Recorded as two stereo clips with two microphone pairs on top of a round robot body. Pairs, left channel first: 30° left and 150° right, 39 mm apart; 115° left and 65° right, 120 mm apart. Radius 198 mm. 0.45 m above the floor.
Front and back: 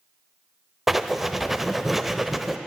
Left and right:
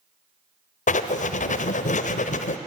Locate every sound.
0.9 s writing: 125° left, 0.8 m